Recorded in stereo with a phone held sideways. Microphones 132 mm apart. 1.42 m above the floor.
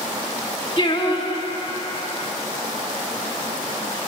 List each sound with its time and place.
0.8 s singing: 35° left (ahead or behind), 1.2 m